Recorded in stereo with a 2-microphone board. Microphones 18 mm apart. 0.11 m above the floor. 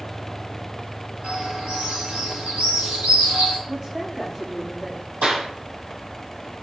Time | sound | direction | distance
1.2 | a bird | 85° right | 8 m
3.7 | a woman speaking | 35° right (ahead or behind) | 7.5 m
5.2 | a clap | 70° right (ahead or behind) | 2.5 m